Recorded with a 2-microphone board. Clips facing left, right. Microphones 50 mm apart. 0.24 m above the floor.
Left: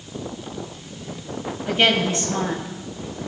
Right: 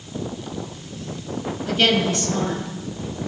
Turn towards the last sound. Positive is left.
turn(degrees=45)  # may be behind; listen again after turning